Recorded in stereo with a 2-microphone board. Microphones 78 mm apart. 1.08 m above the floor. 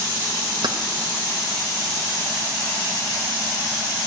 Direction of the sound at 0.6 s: 65° right (ahead or behind).